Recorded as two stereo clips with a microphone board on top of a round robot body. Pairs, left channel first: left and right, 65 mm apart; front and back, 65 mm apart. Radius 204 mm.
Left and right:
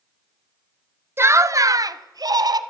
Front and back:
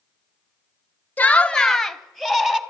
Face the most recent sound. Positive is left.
turn(degrees=-95)